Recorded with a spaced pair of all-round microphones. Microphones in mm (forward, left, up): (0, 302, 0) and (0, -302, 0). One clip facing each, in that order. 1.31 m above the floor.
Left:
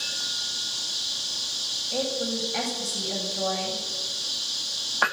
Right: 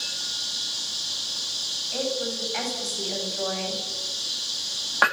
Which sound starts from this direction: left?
A woman speaking, at 1.9 s.